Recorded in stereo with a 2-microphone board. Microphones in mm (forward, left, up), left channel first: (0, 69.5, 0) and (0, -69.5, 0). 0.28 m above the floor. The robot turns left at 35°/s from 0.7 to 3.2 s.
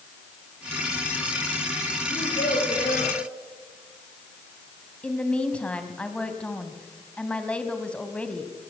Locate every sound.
2.1 s a child speaking: 95° left, 9 m; by 3.1 s 60° left, 9 m
5.0 s a woman speaking: 10° left (ahead or behind), 2 m